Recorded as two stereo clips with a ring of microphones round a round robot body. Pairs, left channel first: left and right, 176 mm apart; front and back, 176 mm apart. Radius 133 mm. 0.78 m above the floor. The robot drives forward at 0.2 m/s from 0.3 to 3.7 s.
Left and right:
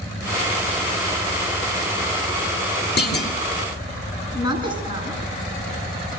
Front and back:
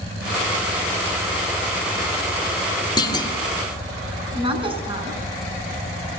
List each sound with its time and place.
3.0 s a clunk: 65° left, 2.5 m; by 3.4 s 70° left, 2.5 m
4.3 s a woman speaking: 120° left, 8.5 m